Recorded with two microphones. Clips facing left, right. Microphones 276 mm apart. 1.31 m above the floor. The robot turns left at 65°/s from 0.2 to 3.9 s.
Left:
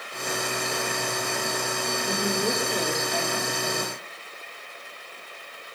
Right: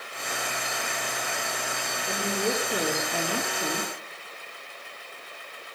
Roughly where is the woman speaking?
Ahead left.